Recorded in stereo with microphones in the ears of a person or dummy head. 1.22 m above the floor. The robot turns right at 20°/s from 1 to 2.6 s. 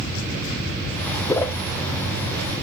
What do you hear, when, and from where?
1.3 s a whoosh: 10° left (ahead or behind), 0.7 m; by 1.6 s 5° left (ahead or behind), 0.7 m